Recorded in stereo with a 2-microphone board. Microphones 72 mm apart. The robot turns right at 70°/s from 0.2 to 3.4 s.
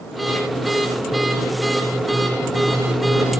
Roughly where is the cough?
I don't hear a cough.